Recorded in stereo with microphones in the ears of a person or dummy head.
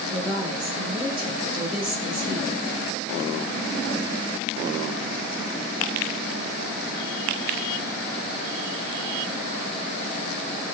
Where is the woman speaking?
30° right (ahead or behind), 1.2 m.